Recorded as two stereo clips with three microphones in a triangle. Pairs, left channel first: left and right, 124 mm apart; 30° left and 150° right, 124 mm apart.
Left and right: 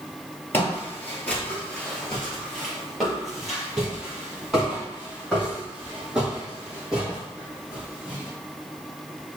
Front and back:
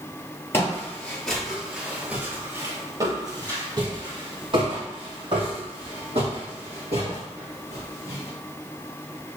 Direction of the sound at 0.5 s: 45° left.